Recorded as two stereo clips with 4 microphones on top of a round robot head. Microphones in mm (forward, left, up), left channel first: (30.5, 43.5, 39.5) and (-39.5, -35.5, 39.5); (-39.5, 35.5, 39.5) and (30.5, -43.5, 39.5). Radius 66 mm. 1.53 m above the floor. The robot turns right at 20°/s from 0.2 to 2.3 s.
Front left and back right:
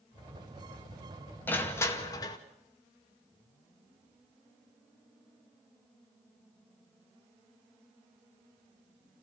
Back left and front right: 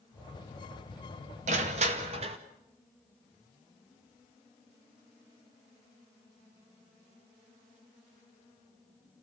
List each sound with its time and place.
1.5 s crushing: 25° right, 1.9 m; by 2.4 s 10° right, 1.9 m